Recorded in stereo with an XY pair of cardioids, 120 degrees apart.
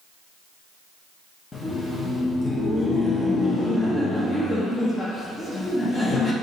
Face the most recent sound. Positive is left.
turn(degrees=25)